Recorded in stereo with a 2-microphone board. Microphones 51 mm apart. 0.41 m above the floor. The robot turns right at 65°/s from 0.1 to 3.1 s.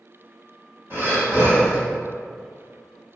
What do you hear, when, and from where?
0.9 s breathing: 80° right, 1.3 m; by 1.8 s 25° right, 1.3 m